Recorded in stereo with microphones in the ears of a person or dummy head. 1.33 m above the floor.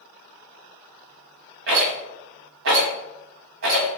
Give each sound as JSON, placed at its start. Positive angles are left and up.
{"t": 1.7, "sound": "a rattle", "side_deg": -65, "distance_m": 1.2}